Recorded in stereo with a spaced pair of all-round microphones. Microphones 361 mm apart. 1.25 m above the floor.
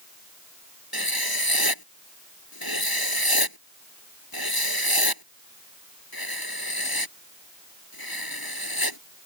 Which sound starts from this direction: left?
Writing, at 0.9 s.